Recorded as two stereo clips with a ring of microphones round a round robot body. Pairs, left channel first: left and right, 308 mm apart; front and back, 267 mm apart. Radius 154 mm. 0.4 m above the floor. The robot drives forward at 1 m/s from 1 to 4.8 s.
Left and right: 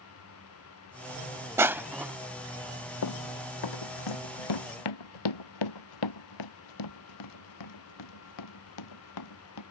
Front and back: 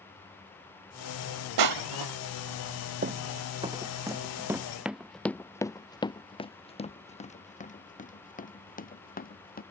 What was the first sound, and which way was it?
Crushing, 170° right.